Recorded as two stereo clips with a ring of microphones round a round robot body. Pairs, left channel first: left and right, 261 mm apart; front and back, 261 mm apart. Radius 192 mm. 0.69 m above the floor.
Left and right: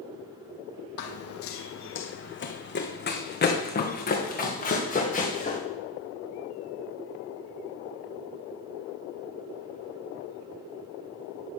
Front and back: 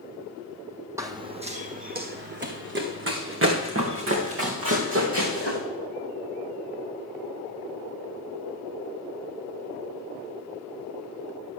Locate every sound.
1.0 s running footsteps: 100° left, 1.3 m; by 5.6 s 150° left, 4 m